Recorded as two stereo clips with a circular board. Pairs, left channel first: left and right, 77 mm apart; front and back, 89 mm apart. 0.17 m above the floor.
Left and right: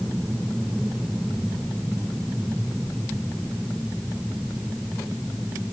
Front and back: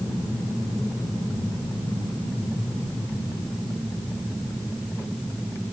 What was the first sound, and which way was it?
Only background noise.